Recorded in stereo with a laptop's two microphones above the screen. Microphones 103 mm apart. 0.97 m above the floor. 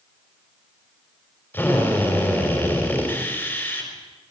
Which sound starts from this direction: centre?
A drill, at 1.5 s.